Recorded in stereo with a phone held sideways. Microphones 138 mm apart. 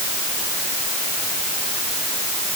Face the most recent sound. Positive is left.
No sound to turn to.